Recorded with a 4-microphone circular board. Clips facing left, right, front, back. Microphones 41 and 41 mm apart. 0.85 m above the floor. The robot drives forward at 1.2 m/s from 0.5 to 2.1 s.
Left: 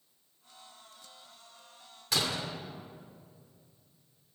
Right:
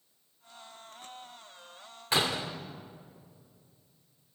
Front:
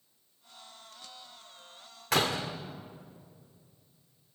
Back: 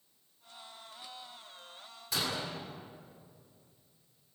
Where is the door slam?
30° right, 2 m.